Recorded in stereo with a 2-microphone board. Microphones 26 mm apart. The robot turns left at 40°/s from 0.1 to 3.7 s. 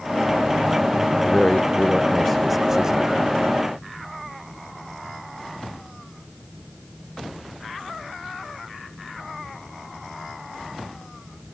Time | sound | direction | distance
1.2 | a man speaking | 50° left | ?